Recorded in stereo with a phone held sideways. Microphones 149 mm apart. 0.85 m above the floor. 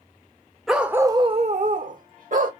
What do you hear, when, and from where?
0.7 s a dog barking: centre (ahead or behind), 0.8 m; by 2.5 s 60° right (ahead or behind), 1.2 m